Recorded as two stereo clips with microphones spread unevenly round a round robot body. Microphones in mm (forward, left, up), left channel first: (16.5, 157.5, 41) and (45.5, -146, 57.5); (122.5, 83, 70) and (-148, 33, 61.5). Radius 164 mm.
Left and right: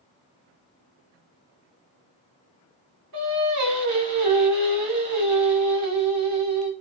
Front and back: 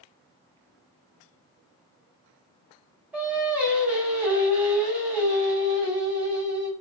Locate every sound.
3.1 s singing: 85° right, 1.3 m